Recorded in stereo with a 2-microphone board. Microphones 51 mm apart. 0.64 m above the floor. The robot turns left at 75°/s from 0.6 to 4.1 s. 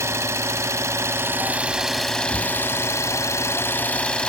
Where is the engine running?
70° right, 0.9 m; by 4.3 s 25° left, 0.9 m.